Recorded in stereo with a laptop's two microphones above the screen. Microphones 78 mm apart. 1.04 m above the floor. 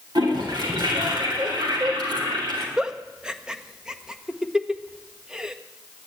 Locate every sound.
0.1 s a toilet flushing: 70° right (ahead or behind), 3.5 m
2.8 s a giggle: 10° right (ahead or behind), 1.1 m